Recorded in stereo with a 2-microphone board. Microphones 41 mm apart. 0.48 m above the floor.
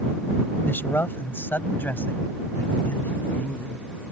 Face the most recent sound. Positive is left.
turn(degrees=45)  # may be behind; listen again after turning